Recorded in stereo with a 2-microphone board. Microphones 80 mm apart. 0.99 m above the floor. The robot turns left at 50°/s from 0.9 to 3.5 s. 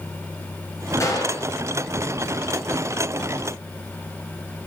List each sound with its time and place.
1.0 s a gunshot: 40° left (ahead or behind), 7 m; by 1.5 s 60° left (ahead or behind), 7 m